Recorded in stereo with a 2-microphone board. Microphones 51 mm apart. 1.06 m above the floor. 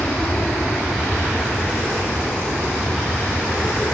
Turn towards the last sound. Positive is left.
turn(degrees=35)  # may be behind; listen again after turning